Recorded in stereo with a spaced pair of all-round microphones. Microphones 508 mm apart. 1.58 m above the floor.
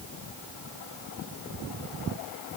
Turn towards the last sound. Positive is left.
No sound to turn to.